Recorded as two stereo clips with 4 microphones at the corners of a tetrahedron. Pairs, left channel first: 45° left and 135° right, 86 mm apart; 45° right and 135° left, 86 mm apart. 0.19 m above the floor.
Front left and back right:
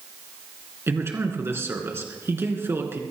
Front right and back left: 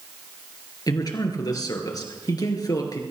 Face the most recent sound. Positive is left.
turn(degrees=-75)